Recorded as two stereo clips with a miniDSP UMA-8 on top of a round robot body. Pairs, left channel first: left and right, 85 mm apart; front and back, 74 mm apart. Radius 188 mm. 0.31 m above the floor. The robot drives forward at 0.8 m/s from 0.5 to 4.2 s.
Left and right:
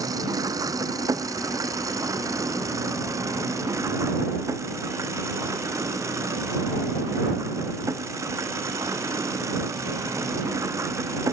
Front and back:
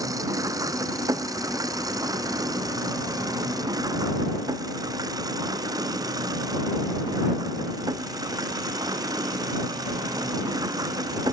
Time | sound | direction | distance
0.0 | an engine running | 140° right | ?